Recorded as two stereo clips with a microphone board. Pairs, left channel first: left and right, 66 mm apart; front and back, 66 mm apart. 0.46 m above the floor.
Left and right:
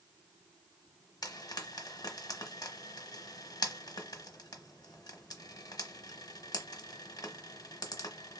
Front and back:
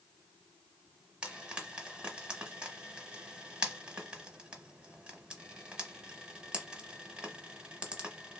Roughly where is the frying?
Left.